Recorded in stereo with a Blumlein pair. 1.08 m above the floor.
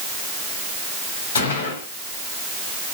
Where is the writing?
No writing in this recording.